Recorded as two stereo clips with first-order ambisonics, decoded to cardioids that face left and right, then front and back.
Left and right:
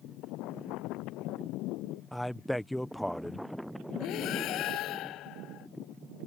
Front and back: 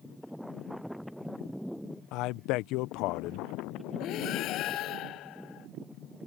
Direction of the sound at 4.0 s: 45° left.